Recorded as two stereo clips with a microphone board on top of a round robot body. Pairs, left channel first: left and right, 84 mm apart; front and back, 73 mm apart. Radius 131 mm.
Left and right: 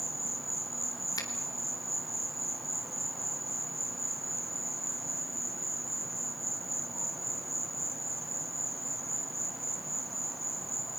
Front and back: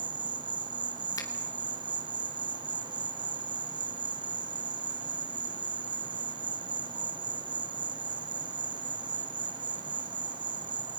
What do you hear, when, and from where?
0.0 s an insect: straight behind, 0.7 m
1.2 s a finger snap: 40° left, 2.5 m